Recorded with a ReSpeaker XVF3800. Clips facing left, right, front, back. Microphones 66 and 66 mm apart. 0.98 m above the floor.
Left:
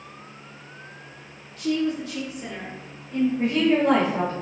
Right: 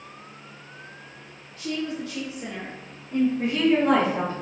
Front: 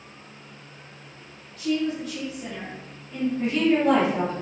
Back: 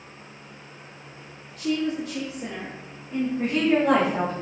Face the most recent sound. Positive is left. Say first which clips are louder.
# left 3 dB, front 1 dB
turn(degrees=130)